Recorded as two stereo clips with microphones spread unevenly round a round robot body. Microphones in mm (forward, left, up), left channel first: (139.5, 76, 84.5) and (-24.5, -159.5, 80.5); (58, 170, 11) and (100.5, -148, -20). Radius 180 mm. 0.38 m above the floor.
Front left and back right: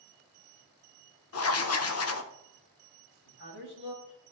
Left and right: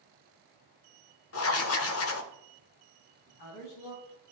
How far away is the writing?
About 0.7 m.